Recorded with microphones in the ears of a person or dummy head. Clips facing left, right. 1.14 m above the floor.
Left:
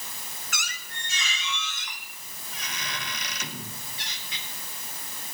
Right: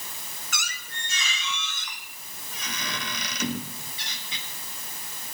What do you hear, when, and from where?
0.5 s a squeak: 80° right, 1.4 m